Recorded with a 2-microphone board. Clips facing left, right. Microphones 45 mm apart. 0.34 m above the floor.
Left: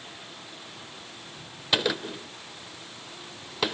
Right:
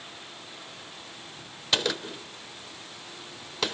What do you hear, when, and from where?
1.7 s a gunshot: 10° left (ahead or behind), 0.8 m